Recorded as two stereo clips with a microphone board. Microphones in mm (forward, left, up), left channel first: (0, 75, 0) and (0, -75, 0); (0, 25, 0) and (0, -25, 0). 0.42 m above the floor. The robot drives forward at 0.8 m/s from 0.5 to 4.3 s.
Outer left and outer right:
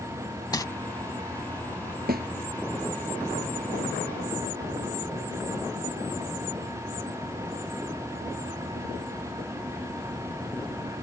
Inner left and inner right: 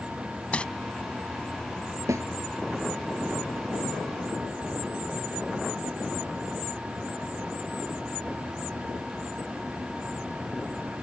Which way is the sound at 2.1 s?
80° right.